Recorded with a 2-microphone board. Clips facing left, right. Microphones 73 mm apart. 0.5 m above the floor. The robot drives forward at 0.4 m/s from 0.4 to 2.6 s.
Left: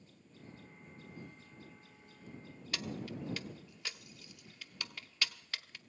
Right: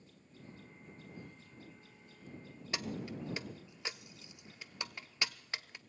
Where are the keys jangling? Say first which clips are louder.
Right 1 dB; 20° right (ahead or behind), 0.6 m.